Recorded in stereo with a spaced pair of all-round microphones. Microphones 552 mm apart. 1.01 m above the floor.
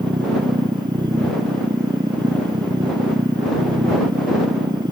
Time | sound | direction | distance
0.0 | a machine running | 10° right (ahead or behind) | ?